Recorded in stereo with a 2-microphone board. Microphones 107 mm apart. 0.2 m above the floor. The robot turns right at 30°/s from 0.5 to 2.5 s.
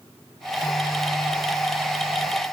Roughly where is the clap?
No clap in this recording.